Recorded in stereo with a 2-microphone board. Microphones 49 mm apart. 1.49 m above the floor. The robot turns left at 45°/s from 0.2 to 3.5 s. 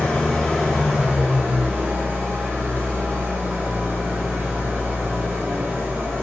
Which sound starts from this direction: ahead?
An engine running, at 0.0 s.